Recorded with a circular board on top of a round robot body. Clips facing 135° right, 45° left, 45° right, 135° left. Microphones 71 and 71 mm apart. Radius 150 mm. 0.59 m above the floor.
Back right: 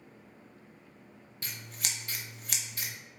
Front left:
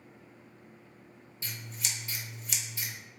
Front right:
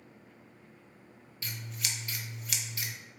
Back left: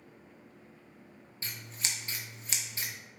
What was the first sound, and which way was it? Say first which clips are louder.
Scissors: even, front right 1 dB; 165° right.